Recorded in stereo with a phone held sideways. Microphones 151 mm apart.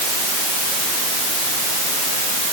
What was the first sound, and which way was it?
Only background noise.